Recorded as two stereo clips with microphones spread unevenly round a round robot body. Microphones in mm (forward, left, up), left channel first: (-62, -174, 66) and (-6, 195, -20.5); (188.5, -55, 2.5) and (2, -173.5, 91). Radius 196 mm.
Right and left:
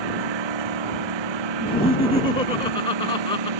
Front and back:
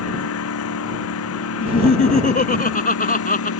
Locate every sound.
0.0 s a lawn mower: 55° left
1.6 s laughter: 20° right